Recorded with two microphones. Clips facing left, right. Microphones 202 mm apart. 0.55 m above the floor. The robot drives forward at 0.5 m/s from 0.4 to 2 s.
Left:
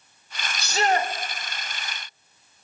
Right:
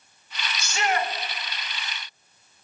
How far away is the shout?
About 1.5 m.